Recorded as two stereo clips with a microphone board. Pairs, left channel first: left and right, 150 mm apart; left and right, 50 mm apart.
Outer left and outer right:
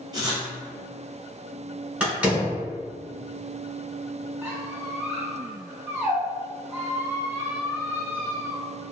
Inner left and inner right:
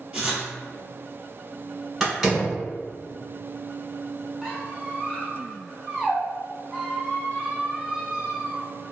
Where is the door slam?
10° right (ahead or behind), 1.1 m.